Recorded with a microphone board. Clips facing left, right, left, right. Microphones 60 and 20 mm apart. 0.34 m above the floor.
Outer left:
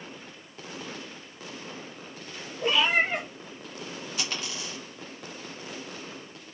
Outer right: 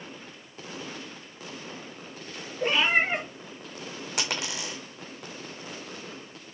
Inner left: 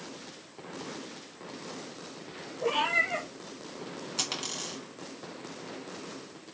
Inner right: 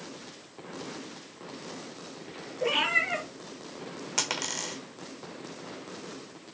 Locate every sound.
2.6 s a cat meowing: 35° right (ahead or behind), 3 m
4.2 s a dropped coin: 75° right (ahead or behind), 1.3 m